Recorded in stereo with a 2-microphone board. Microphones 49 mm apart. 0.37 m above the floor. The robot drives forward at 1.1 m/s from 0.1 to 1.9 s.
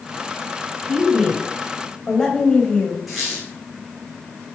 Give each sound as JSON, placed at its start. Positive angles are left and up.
{"t": 0.9, "sound": "a woman speaking", "side_deg": 10, "distance_m": 3.0}
{"t": 3.1, "sound": "a squeak", "side_deg": -5, "distance_m": 1.8}